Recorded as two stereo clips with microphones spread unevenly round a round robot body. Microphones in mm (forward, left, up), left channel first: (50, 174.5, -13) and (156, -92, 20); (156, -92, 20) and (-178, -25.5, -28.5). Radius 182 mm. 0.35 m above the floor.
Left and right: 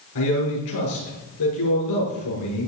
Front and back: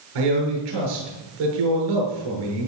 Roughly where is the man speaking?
Behind left.